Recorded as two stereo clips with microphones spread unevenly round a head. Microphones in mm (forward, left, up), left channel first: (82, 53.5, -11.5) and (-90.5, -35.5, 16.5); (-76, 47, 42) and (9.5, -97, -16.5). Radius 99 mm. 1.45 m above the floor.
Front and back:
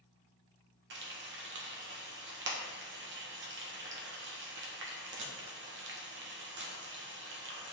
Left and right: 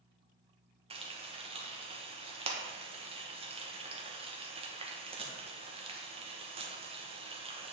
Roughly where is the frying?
Behind right.